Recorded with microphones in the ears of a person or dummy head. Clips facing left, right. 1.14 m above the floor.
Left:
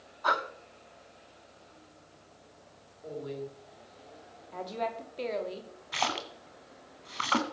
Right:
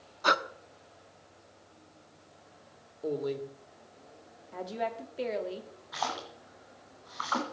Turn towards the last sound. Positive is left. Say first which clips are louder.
# left 2 dB
turn(degrees=40)  # may be behind; listen again after turning